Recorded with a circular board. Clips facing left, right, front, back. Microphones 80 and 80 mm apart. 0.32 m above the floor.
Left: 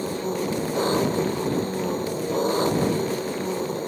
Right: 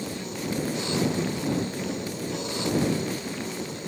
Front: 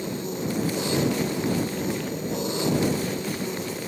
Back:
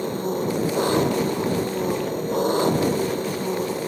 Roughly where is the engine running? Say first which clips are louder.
Left 7 dB, back 5 dB; behind left.